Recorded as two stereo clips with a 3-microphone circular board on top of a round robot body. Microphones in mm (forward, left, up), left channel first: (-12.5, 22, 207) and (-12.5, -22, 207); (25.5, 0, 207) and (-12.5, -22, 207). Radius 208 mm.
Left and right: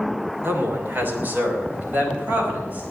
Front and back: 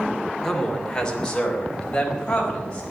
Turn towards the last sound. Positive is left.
turn(degrees=-40)